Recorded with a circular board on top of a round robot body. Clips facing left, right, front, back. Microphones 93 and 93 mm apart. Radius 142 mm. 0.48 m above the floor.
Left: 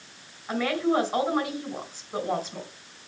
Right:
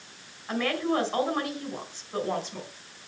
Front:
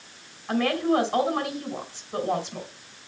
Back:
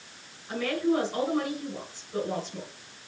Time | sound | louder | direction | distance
0.5 | a woman speaking | left 2 dB, front 3 dB | 10° left | 4 m